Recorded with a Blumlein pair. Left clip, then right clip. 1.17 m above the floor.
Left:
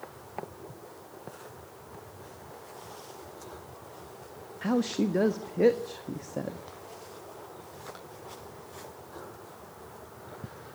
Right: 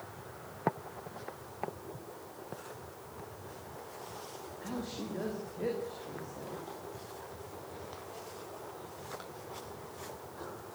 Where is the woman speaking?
55° left, 1.5 m.